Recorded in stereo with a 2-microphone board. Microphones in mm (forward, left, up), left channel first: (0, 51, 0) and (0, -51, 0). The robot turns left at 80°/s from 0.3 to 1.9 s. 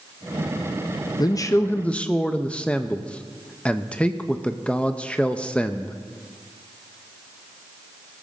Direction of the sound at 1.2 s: 75° left.